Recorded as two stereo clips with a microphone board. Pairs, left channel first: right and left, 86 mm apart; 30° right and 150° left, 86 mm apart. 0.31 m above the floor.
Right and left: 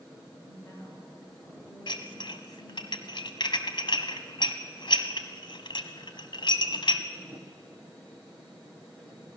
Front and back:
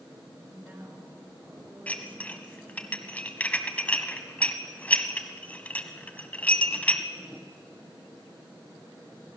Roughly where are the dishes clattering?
Right.